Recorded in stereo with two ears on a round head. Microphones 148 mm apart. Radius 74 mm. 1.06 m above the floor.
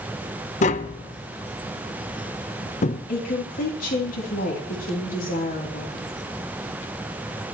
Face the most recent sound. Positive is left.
turn(degrees=55)  # may be behind; listen again after turning